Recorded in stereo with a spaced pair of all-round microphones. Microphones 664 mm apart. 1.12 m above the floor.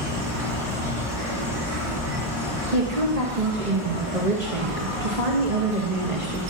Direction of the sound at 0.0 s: 60° right (ahead or behind).